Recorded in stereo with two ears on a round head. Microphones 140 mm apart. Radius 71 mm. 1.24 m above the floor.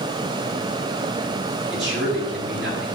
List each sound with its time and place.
1.7 s a man speaking: 70° right (ahead or behind), 6.5 m